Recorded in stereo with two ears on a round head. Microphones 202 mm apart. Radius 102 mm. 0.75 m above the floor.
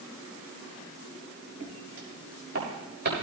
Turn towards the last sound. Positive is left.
turn(degrees=-45)  # may be behind; listen again after turning